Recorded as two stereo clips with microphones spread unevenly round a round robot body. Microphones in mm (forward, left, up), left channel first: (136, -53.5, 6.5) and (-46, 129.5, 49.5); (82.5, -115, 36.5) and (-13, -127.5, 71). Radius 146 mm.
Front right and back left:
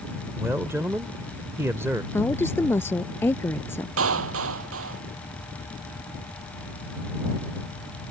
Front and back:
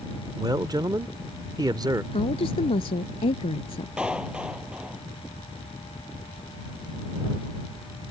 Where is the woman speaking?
35° left.